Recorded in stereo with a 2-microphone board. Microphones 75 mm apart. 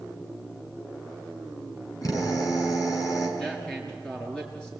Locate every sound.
2.0 s a drill: 50° left (ahead or behind), 5 m
3.4 s a man speaking: 10° left (ahead or behind), 6.5 m